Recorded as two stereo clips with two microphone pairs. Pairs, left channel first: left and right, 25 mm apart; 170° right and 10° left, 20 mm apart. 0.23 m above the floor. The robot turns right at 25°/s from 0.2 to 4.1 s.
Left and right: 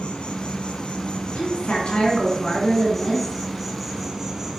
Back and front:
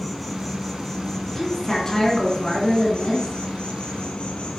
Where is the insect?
95° left, 1.1 m; by 4.6 s 165° right, 1.1 m.